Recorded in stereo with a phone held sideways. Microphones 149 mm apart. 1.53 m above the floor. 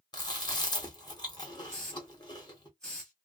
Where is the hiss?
5° left (ahead or behind), 1.5 m.